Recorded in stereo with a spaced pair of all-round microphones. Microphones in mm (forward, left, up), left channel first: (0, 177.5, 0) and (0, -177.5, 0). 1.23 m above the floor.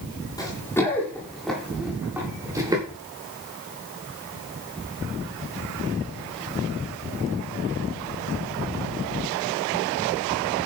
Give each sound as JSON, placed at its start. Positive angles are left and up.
{"t": 0.4, "sound": "running footsteps", "side_deg": 10, "distance_m": 8.0}